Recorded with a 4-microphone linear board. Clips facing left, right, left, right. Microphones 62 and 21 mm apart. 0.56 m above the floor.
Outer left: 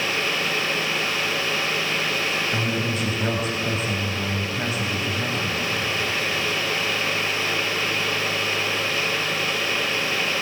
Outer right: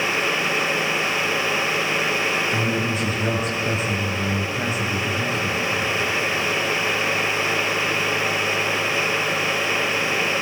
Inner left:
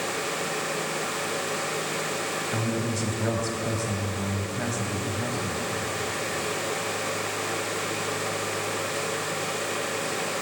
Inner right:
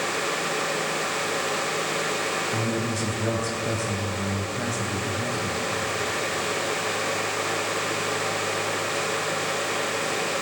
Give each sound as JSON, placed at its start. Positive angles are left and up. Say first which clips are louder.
{"t": 2.5, "sound": "a man speaking", "louder": "outer right 2 dB, inner right 2 dB", "side_deg": 0, "distance_m": 3.0}